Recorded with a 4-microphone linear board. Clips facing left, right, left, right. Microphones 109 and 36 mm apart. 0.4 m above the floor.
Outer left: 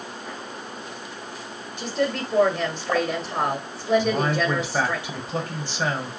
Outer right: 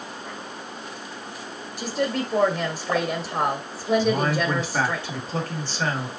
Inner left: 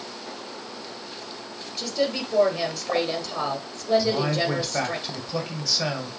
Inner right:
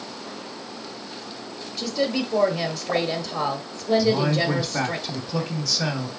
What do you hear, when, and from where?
1.8 s a woman speaking: centre (ahead or behind), 0.9 m
4.0 s a man speaking: 15° left (ahead or behind), 1.5 m